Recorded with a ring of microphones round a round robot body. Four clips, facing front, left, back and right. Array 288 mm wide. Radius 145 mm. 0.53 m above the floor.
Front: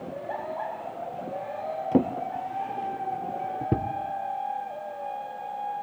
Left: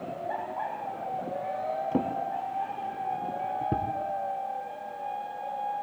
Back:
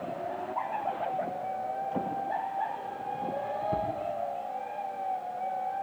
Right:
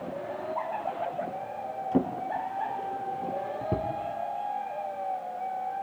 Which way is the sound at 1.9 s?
Straight ahead.